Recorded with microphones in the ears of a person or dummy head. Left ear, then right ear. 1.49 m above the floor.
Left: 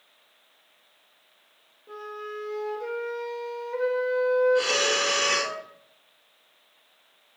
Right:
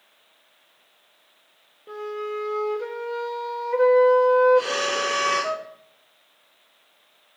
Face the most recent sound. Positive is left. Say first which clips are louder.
# right 1 dB
turn(degrees=20)  # may be behind; listen again after turning